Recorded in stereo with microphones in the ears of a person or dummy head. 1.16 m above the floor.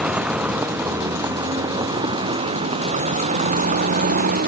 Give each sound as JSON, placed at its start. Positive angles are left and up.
{"t": 0.0, "sound": "a vehicle", "side_deg": -5}